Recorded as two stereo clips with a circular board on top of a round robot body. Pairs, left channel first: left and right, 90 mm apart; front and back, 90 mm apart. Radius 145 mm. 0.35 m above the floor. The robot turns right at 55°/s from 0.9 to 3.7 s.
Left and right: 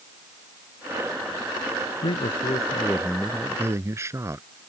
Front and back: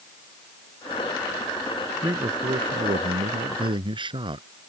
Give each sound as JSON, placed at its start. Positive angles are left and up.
{"t": 2.0, "sound": "a man speaking", "azimuth_deg": 115}